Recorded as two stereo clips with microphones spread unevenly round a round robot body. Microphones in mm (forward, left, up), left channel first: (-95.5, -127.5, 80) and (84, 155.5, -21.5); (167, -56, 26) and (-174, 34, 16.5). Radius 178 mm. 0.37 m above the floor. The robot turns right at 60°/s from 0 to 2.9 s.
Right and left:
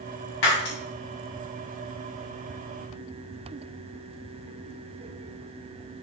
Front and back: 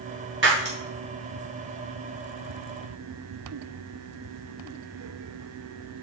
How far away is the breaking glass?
About 6 m.